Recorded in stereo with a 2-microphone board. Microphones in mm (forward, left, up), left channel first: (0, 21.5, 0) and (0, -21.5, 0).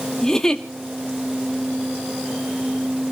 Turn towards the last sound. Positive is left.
turn(degrees=15)  # may be behind; listen again after turning